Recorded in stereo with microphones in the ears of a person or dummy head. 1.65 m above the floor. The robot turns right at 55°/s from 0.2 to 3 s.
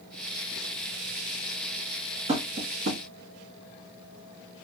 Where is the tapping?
30° right (ahead or behind), 0.9 m; by 3.0 s 65° right (ahead or behind), 0.9 m.